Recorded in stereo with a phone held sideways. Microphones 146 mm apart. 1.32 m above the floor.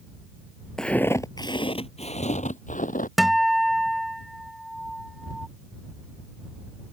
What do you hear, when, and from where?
0.8 s footsteps: 5° left (ahead or behind); by 3.1 s 60° left (ahead or behind)
3.2 s a guitar: centre (ahead or behind)